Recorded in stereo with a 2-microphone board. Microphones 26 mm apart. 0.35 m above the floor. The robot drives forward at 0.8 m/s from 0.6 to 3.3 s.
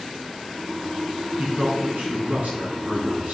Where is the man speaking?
65° right (ahead or behind), 3.5 m; by 3.3 s 70° right (ahead or behind), 3.5 m.